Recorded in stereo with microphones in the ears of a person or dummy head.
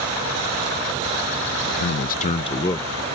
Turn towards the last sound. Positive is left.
turn(degrees=20)  # may be behind; listen again after turning